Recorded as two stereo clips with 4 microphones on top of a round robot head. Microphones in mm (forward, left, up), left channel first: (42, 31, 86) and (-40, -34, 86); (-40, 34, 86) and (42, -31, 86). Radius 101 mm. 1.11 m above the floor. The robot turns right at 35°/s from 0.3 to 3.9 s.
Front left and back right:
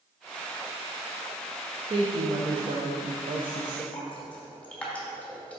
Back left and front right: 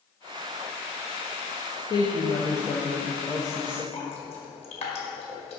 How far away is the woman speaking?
About 1.0 m.